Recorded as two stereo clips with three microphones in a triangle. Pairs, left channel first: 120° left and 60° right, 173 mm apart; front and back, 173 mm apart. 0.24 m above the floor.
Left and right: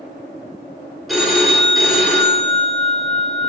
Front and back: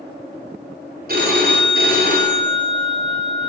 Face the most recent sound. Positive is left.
turn(degrees=-150)